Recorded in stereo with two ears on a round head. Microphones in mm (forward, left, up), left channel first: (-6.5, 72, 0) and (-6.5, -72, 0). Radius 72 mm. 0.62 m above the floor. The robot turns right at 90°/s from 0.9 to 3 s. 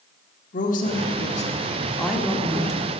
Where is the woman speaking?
75° left, 1.7 m; by 2.9 s 105° right, 1.7 m.